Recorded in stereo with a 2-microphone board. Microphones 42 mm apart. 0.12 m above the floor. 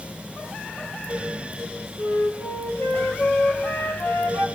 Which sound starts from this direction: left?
A flute, at 2.0 s.